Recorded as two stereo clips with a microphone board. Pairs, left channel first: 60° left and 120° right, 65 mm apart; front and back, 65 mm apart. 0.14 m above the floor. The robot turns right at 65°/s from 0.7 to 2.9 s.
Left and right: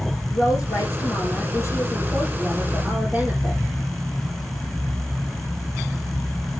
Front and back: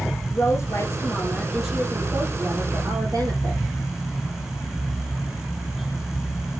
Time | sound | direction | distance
0.3 | a woman speaking | 35° left | 4 m